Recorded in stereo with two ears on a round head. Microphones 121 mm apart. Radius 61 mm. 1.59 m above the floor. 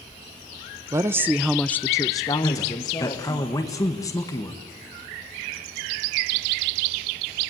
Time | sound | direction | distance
0.9 | a woman speaking | 20° right (ahead or behind) | 0.9 m
2.4 | a man speaking | 25° left (ahead or behind) | 1.9 m